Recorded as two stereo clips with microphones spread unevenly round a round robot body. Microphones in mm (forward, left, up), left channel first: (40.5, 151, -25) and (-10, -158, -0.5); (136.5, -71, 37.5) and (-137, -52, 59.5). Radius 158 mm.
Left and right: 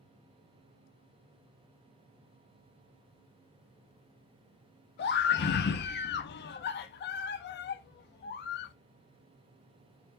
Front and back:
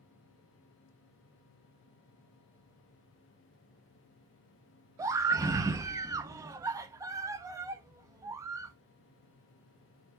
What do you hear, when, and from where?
5.0 s a scream: 100° left, 0.6 m